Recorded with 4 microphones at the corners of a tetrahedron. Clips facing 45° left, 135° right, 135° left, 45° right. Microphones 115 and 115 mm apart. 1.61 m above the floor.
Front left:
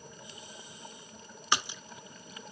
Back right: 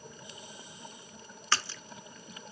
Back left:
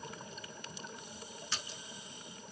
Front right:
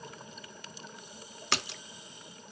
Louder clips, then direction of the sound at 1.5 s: Front left 1 dB, front right 13 dB; 30° right.